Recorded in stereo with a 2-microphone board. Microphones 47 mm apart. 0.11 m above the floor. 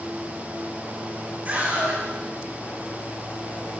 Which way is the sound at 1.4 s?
35° right (ahead or behind).